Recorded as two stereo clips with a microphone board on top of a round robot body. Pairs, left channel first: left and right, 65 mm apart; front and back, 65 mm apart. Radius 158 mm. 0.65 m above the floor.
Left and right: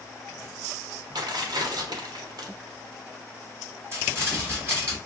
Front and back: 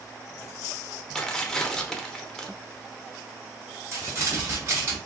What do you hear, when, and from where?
1.1 s tearing paper: 80° right, 0.8 m
3.9 s crumpling: 140° right, 2.5 m